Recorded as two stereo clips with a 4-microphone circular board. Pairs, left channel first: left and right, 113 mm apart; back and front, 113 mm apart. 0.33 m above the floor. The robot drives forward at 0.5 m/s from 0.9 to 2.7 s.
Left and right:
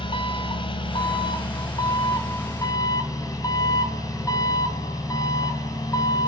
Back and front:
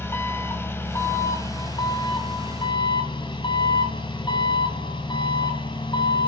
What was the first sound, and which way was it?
An engine running, 115° left.